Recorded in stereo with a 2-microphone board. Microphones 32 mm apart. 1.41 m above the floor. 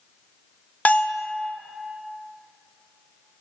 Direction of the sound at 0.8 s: 50° left (ahead or behind).